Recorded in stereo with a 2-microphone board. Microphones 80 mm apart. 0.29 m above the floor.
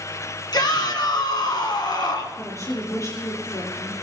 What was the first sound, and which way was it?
A shout, 60° left (ahead or behind).